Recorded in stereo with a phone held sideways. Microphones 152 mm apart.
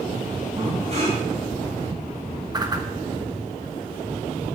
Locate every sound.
0.6 s breathing: 45° right (ahead or behind), 5.5 m
2.5 s a whoosh: 25° right (ahead or behind), 1.1 m